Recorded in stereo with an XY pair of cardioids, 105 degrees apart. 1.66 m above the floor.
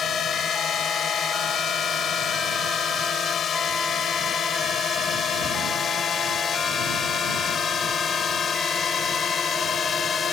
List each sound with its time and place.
0.0 s a drone: 55° left; by 10.3 s 45° left